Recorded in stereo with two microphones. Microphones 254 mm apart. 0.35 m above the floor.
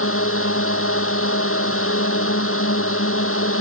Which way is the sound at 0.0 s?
55° left (ahead or behind).